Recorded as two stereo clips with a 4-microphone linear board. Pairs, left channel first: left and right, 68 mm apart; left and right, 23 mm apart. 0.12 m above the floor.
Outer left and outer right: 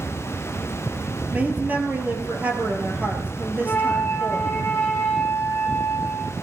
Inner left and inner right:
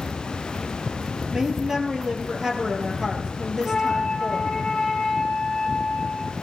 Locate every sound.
1.3 s a woman speaking: 20° right (ahead or behind), 2.5 m
3.6 s a flute: 30° left (ahead or behind), 4 m